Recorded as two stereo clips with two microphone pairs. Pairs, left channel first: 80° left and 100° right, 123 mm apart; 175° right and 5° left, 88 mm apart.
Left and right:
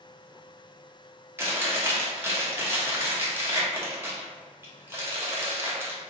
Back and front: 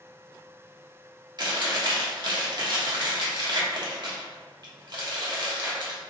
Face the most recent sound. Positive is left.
turn(degrees=-30)